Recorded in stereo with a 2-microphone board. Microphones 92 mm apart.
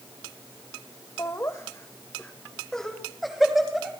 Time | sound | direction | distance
1.2 | laughter | 35° left (ahead or behind) | 1.1 m